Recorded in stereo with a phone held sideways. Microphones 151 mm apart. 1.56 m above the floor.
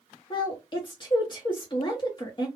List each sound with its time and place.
0.3 s a woman speaking: 35° left (ahead or behind), 0.8 m